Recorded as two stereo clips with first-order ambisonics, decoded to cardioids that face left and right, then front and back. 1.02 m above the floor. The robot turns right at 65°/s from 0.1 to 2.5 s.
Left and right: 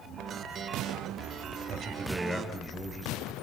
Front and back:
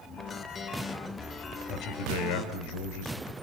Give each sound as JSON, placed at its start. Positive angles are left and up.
{"t": 1.7, "sound": "a man speaking", "azimuth_deg": -40, "distance_m": 4.0}